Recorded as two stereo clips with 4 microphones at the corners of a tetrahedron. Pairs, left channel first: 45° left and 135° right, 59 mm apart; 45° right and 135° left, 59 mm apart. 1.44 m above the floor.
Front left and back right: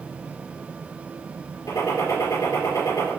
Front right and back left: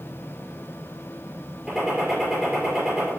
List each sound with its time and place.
1.7 s a gunshot: 50° left, 5.5 m